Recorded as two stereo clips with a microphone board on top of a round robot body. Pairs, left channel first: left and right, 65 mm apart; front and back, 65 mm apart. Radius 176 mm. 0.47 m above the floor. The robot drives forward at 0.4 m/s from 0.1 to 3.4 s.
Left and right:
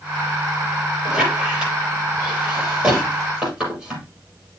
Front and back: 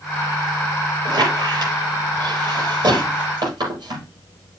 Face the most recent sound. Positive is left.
turn(degrees=-170)